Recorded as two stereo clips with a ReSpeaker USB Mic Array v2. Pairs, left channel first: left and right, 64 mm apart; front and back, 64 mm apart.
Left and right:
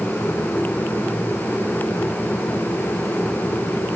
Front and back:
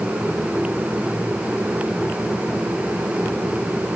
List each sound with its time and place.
Only background noise.